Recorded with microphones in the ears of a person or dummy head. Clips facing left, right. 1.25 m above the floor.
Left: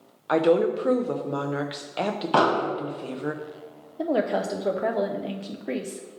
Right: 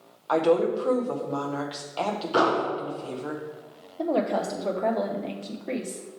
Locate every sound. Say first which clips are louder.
0.3 s a woman speaking: left 1 dB; 30° left (ahead or behind), 0.6 m
2.3 s an explosion: left 1 dB; 70° left (ahead or behind), 1.9 m
4.0 s a woman speaking: left 1 dB; 15° left (ahead or behind), 0.7 m